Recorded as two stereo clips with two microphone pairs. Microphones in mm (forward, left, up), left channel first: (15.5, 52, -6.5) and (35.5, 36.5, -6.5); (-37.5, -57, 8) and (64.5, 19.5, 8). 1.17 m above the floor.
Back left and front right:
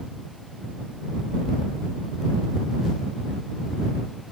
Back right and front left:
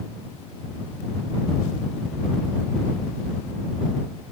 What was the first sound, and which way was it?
Only background noise.